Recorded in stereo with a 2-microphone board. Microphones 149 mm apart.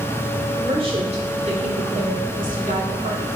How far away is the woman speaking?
About 2.5 m.